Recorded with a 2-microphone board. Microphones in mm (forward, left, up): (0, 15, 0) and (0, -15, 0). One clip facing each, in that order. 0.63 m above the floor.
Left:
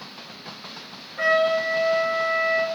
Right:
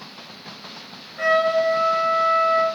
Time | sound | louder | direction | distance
1.2 | a trumpet | right 2 dB | 20° left (ahead or behind) | 2.5 m